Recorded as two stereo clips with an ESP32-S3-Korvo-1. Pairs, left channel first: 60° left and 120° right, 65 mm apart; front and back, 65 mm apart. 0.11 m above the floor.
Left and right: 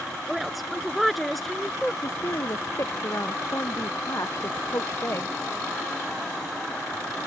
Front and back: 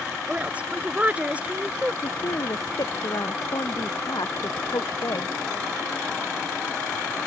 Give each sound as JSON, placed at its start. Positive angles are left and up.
{"t": 0.3, "sound": "a woman speaking", "azimuth_deg": 150}
{"t": 2.0, "sound": "a woman speaking", "azimuth_deg": 15}